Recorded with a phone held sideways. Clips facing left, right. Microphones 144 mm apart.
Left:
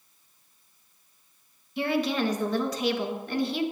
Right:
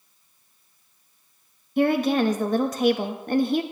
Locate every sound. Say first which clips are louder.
1.8 s a woman speaking: right 6 dB; 50° right (ahead or behind), 1.0 m